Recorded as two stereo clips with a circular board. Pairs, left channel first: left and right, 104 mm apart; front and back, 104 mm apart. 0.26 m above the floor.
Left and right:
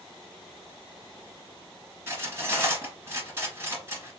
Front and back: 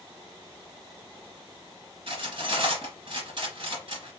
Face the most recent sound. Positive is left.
turn(degrees=-155)